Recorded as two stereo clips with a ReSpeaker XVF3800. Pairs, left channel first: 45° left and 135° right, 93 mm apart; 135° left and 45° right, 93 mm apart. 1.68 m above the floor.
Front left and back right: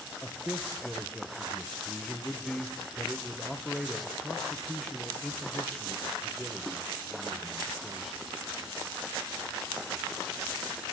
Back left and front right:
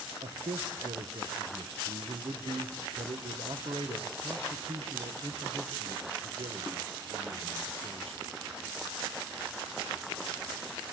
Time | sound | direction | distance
0.2 | a man speaking | 40° right | 1.8 m